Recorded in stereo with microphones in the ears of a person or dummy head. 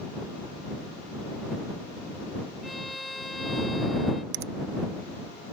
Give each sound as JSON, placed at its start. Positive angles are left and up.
{"t": 2.6, "sound": "a violin", "side_deg": 0}
{"t": 4.3, "sound": "a finger snap", "side_deg": -55}